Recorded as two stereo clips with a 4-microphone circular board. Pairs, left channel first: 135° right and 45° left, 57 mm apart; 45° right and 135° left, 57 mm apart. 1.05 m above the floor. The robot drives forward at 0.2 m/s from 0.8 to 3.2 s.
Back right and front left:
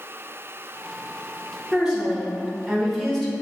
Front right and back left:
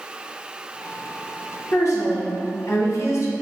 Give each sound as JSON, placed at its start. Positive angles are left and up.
{"t": 1.7, "sound": "a woman speaking", "azimuth_deg": -35, "distance_m": 0.9}